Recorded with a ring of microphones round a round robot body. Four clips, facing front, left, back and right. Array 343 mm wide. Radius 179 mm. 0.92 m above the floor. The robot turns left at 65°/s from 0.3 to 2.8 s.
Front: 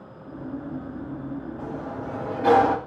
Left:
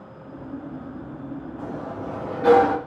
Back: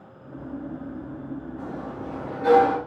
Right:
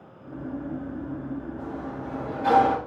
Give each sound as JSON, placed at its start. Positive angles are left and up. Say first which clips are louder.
{"t": 1.6, "sound": "a sliding door", "louder": "left 2 dB, front 1 dB", "azimuth_deg": 110, "distance_m": 2.5}